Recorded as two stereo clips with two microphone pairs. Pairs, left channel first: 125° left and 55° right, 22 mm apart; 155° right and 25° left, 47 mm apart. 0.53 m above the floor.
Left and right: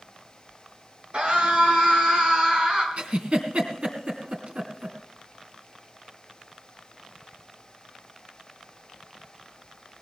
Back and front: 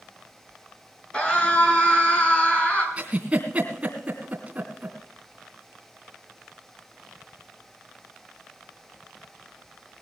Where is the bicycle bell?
I don't hear a bicycle bell.